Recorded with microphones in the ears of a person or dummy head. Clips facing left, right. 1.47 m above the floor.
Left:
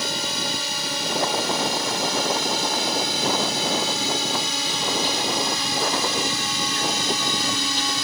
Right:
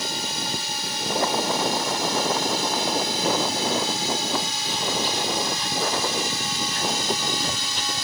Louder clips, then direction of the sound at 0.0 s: Left 2 dB; 70° left (ahead or behind).